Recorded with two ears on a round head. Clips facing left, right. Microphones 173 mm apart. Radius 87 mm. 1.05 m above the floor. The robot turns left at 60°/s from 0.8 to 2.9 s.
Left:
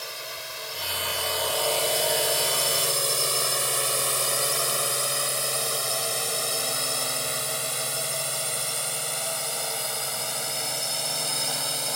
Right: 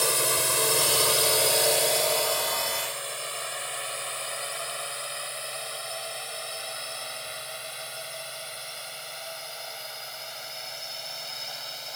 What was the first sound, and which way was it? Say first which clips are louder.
A drone: right 11 dB; 65° right (ahead or behind).